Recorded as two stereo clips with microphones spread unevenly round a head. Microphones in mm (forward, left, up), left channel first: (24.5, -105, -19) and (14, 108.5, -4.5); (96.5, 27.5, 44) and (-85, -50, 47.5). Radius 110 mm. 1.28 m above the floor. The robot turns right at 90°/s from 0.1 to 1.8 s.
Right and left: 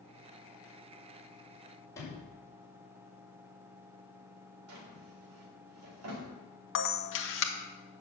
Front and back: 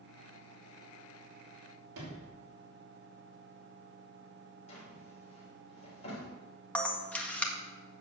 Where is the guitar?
I don't hear a guitar.